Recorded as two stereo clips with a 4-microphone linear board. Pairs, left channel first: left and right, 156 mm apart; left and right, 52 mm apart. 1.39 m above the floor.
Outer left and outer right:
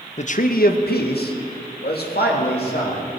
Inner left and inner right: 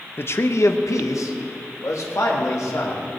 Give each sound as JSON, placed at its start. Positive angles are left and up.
{"t": 0.2, "sound": "a man speaking", "side_deg": 45, "distance_m": 0.8}